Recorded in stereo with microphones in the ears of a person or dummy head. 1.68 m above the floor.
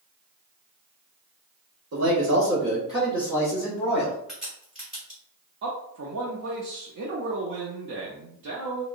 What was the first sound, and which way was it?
A man speaking, 55° right (ahead or behind).